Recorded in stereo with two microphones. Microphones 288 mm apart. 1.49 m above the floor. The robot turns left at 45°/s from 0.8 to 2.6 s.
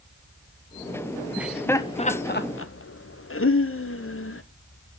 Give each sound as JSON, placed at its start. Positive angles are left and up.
{"t": 1.4, "sound": "laughter", "side_deg": -5, "distance_m": 0.8}